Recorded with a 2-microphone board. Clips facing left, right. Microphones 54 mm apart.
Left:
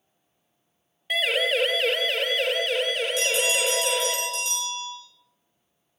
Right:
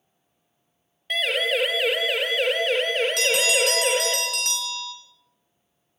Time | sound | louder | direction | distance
1.1 | a siren | even | 5° left (ahead or behind) | 3 m
3.2 | a bell | right 2 dB | 65° right (ahead or behind) | 4.5 m